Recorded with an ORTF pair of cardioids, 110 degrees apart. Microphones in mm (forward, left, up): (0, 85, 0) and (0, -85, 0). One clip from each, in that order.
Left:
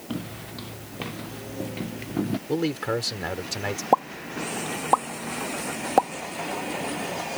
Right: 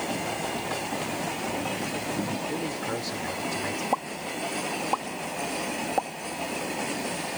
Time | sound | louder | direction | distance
0.1 | footsteps | right 7 dB | 35° left | ?
2.5 | a man speaking | left 4 dB | 50° left | ?
3.9 | a pop | left 6 dB | 45° left | ?